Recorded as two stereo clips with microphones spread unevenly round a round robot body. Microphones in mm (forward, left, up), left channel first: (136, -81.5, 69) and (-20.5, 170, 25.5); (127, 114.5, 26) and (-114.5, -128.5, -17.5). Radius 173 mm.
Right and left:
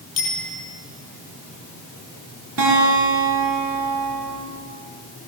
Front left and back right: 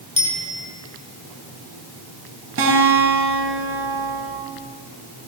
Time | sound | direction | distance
0.2 | a bicycle bell | 40° right | 9 m
2.6 | a guitar | 175° left | 7.5 m